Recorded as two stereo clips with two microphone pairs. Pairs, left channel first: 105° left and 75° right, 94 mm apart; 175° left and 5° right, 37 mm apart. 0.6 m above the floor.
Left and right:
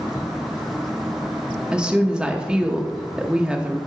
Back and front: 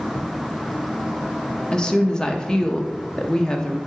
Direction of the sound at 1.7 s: 145° right.